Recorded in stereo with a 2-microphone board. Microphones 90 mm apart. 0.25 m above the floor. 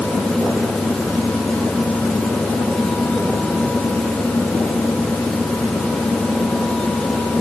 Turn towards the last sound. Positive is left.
No sound to turn to.